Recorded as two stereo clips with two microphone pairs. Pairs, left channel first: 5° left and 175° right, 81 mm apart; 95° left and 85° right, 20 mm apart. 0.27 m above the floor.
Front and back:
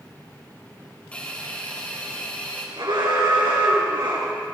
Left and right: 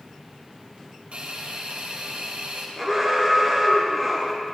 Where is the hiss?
65° right, 3 m.